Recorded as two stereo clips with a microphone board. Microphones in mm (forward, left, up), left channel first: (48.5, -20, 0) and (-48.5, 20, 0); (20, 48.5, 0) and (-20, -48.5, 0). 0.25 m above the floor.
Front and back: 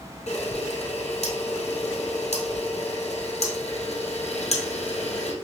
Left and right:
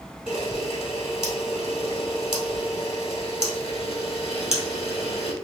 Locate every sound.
0.3 s a camera shutter: 25° right, 2.0 m